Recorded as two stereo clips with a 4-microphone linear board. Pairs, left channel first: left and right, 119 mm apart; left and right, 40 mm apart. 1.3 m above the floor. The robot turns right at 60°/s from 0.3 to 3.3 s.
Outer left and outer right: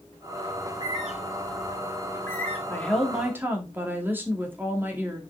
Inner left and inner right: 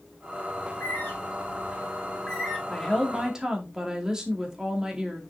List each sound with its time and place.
0.6 s a bird: 55° left (ahead or behind), 3.5 m; by 2.6 s 5° left (ahead or behind), 3.5 m
2.7 s a woman speaking: 160° left, 2 m; by 5.2 s 165° right, 2 m